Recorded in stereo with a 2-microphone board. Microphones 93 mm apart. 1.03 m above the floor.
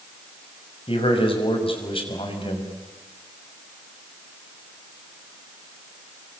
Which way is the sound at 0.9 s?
75° left (ahead or behind).